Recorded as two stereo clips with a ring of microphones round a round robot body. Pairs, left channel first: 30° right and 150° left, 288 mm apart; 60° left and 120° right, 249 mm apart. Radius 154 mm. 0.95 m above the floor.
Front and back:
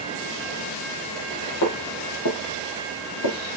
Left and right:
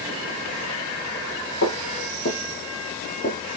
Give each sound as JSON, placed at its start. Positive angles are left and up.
{"t": 1.6, "sound": "footsteps", "azimuth_deg": 10, "distance_m": 3.0}